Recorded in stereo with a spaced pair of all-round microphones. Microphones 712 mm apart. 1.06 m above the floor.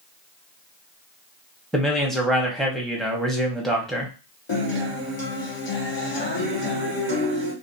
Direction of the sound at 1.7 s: Centre (ahead or behind).